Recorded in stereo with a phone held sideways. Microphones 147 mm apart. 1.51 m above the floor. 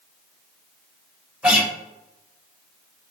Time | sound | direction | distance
1.4 | a guitar | 5° right (ahead or behind) | 1.4 m